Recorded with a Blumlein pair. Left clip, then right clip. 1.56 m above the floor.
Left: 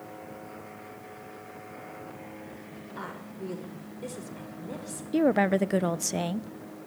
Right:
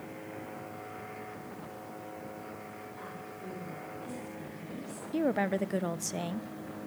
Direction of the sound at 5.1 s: 20° left.